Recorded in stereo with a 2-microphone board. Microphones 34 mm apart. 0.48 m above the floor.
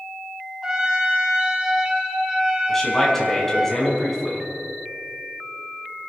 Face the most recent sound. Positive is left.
turn(degrees=10)  # may be behind; listen again after turning